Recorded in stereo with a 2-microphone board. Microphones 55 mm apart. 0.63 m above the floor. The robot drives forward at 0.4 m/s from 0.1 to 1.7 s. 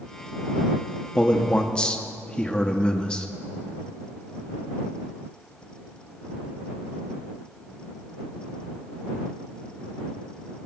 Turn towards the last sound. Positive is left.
turn(degrees=15)  # may be behind; listen again after turning